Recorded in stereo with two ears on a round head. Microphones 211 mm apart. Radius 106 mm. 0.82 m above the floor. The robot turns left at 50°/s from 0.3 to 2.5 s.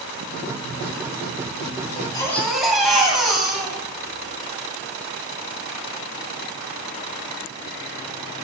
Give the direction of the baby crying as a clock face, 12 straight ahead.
11 o'clock.